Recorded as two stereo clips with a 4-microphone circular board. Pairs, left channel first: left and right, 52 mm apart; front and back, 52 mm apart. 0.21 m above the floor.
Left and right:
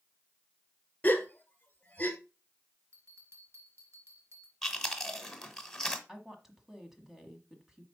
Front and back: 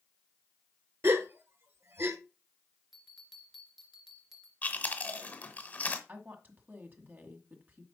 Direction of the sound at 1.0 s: 145° left.